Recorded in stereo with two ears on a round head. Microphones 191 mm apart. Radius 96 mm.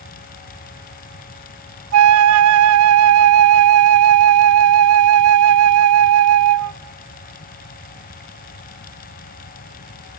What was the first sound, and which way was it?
A flute, 75° right (ahead or behind).